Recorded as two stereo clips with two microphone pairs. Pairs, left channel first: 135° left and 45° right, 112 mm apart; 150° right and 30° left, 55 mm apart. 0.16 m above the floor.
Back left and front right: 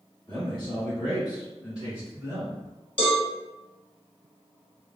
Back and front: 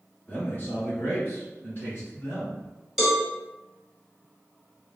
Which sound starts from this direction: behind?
A man speaking, at 0.3 s.